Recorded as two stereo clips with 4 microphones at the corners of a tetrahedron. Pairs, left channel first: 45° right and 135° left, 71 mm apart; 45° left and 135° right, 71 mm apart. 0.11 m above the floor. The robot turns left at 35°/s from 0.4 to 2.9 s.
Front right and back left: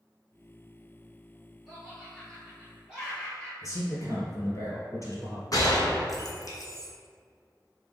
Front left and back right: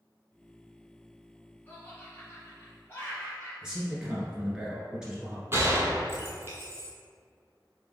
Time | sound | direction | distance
1.7 | laughter | 65° left | 1.2 m
3.6 | a man speaking | 60° right | 1.6 m
5.5 | a gunshot | 80° right | 1.0 m